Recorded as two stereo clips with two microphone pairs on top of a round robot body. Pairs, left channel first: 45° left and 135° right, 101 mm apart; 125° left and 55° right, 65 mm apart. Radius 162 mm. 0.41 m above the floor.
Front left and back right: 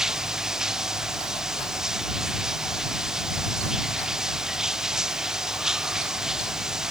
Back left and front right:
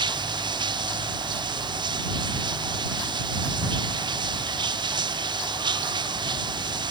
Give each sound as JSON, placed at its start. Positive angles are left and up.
{"t": 0.0, "sound": "running water", "azimuth_deg": -50}